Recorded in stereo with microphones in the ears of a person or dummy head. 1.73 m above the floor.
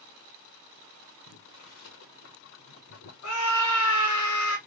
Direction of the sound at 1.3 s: 70° left (ahead or behind).